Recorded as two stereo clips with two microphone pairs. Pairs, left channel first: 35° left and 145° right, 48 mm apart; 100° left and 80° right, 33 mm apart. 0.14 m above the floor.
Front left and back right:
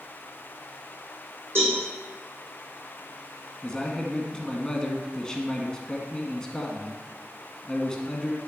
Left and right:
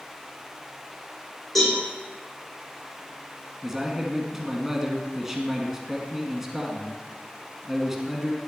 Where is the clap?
No clap in this recording.